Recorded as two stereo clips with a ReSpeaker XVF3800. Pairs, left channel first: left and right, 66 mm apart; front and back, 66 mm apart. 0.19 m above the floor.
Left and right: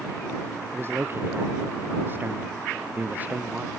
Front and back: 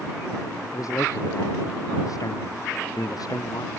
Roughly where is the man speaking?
Ahead right.